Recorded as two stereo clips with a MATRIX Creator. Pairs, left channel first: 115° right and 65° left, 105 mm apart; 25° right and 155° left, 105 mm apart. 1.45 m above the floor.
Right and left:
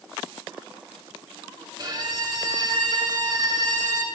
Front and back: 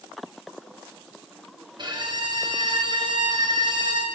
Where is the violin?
115° left, 1.2 m.